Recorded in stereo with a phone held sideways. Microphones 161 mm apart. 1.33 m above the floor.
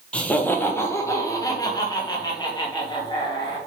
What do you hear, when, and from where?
0.1 s laughter: 5° left (ahead or behind), 1.1 m; by 3.6 s 30° left (ahead or behind), 3 m